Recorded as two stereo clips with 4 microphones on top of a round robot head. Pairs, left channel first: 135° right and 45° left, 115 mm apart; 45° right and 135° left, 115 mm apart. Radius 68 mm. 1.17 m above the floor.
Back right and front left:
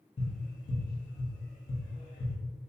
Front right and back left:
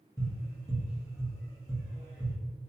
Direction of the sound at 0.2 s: 110° right.